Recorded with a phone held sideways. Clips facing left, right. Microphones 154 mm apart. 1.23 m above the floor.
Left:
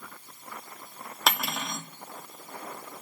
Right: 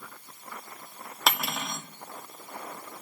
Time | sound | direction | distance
1.3 | cutlery clinking | centre (ahead or behind) | 1.5 m